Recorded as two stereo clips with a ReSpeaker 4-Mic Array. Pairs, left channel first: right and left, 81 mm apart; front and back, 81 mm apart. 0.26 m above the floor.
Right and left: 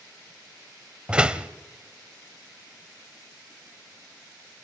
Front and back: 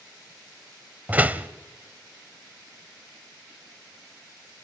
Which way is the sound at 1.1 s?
145° left.